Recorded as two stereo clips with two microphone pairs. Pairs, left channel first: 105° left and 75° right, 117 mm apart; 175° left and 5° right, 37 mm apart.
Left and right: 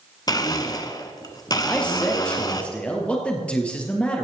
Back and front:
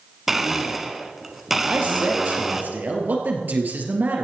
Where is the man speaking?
25° left, 3.5 m.